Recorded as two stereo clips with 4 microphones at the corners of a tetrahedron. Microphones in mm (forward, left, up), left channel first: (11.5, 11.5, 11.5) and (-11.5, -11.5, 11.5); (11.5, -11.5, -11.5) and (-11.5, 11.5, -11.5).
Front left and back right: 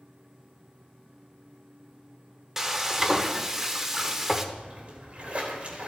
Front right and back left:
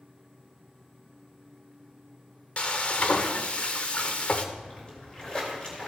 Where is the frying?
60° right, 0.7 m.